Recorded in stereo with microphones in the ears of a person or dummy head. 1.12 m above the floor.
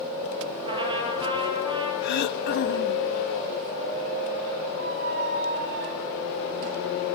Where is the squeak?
50° right (ahead or behind), 1.3 m.